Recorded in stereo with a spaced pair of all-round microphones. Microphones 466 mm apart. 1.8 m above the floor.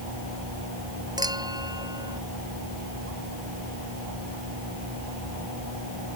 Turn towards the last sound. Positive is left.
turn(degrees=-10)  # may be behind; listen again after turning